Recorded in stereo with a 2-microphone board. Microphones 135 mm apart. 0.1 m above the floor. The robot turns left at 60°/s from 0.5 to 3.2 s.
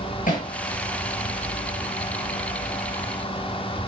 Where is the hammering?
80° left, 6 m.